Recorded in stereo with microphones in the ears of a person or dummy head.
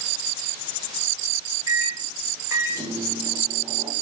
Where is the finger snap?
No finger snap in this recording.